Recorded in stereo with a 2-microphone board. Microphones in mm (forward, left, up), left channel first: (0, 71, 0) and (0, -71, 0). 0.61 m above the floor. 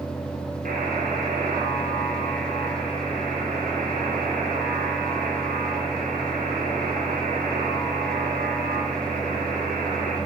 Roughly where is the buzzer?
Right.